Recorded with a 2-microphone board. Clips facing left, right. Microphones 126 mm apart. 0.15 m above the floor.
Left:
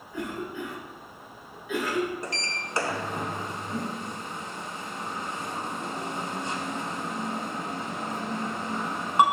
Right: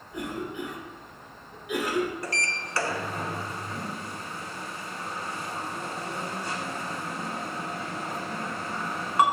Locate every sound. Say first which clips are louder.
0.1 s a cough: even; 15° right (ahead or behind), 2 m
2.2 s a sliding door: right 1 dB; 25° left (ahead or behind), 0.6 m